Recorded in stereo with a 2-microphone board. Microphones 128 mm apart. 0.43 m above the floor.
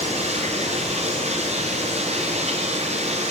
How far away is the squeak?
No squeak in this recording.